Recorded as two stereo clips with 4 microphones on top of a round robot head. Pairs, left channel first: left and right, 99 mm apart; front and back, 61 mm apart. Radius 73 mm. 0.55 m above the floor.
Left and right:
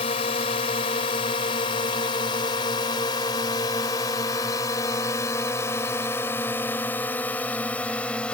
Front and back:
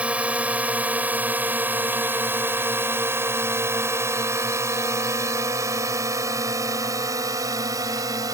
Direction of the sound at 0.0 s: 115° left.